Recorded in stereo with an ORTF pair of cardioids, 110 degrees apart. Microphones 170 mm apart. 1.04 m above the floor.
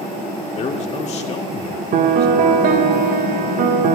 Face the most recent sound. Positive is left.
turn(degrees=-60)